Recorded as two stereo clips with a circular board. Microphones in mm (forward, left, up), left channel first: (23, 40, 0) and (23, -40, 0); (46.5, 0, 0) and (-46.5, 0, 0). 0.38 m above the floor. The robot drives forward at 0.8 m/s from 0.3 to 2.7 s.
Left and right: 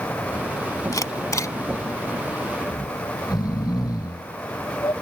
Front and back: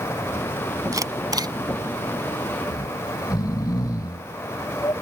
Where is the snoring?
50° left.